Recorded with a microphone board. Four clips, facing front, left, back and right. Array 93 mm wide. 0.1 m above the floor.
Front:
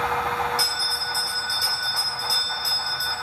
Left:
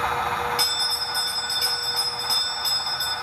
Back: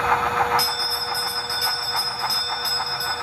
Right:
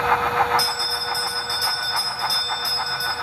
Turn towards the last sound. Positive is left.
turn(degrees=125)